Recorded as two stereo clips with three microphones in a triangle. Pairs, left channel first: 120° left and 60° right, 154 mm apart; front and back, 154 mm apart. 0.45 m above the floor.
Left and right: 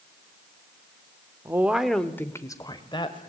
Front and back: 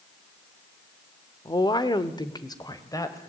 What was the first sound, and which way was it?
A woman speaking, 15° right.